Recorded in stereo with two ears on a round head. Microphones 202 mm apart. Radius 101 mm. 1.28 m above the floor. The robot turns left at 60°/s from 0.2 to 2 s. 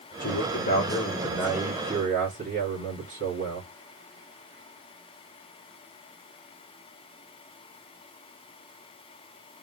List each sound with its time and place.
0.2 s a man speaking: 70° left, 2.5 m; by 3.7 s 40° right, 2.5 m